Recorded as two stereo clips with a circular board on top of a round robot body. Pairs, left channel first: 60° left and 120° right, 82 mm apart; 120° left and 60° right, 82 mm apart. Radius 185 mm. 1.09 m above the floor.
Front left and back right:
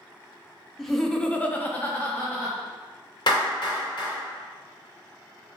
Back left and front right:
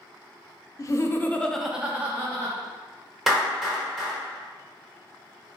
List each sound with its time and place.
0.8 s laughter: 145° left, 0.7 m; by 2.6 s 10° right, 0.9 m
3.3 s a clap: 25° left, 0.8 m